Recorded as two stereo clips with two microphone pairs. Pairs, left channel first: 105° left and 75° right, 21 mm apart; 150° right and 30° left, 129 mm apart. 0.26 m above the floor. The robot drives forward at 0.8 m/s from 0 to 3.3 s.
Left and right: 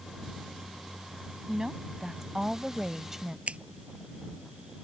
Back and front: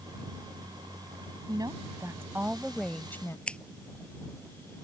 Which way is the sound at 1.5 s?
15° right.